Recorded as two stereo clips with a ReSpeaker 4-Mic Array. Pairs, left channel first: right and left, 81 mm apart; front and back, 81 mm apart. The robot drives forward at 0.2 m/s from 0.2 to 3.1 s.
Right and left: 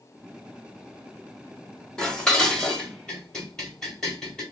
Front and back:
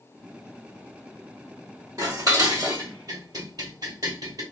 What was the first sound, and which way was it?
Dishes clattering, 170° right.